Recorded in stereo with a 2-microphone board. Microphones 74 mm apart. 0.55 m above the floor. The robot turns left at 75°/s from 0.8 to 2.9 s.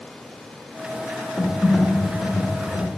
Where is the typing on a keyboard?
Centre (ahead or behind), 1.1 m; by 2.9 s 25° left (ahead or behind), 1.1 m.